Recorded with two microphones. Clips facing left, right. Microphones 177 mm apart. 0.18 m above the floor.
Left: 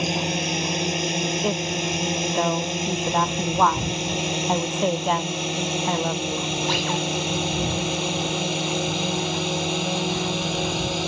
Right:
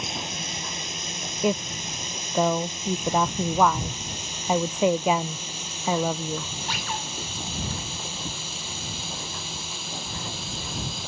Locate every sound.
0.0 s a drone: 70° left (ahead or behind)
1.4 s a woman speaking: 10° right (ahead or behind)